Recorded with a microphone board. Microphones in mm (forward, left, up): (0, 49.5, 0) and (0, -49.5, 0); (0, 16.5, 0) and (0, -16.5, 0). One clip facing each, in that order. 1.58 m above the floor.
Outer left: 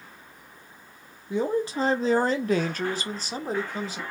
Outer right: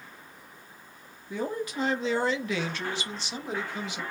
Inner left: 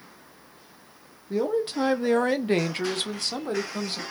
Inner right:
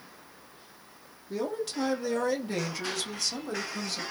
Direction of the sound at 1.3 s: 20° left (ahead or behind).